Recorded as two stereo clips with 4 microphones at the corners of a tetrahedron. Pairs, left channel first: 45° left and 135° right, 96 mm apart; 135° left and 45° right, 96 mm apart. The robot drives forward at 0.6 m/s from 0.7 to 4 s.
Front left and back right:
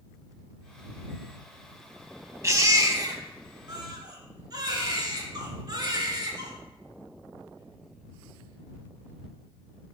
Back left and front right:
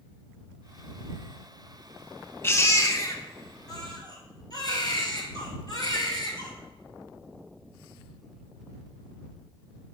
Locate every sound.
2.4 s a baby crying: straight behind, 0.6 m